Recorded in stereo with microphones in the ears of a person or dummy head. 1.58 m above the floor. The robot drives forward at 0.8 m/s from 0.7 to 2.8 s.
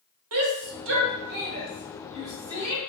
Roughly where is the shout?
Right.